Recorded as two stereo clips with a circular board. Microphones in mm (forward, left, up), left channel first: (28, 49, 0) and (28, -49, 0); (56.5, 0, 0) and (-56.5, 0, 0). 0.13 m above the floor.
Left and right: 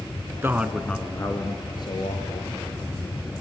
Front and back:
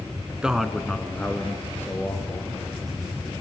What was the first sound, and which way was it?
A man speaking, 110° right.